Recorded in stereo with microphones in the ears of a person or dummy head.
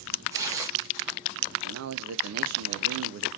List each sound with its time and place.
0.3 s tearing paper: 15° right (ahead or behind), 0.8 m
1.6 s a man speaking: 80° right, 0.5 m